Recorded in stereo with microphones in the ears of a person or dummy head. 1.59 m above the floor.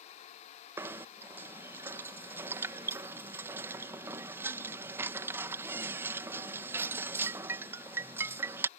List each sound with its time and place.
0.8 s knocking: 15° right (ahead or behind)